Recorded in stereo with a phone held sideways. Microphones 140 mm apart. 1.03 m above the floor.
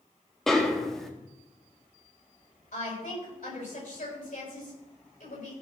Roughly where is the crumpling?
No crumpling in this recording.